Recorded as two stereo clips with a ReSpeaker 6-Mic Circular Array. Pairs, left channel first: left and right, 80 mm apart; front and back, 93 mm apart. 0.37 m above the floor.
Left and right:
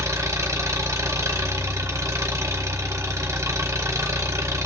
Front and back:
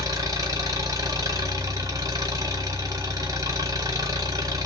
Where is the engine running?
135° right, 1.2 m.